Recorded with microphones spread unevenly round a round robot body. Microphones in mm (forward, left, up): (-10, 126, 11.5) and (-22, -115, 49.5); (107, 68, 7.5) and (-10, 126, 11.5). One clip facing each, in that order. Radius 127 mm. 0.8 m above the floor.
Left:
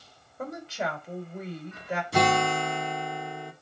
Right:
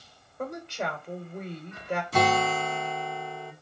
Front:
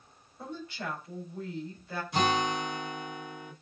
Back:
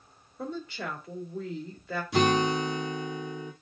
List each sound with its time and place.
0.4 s a woman speaking: 175° left, 3 m
2.1 s a guitar: 165° left, 2 m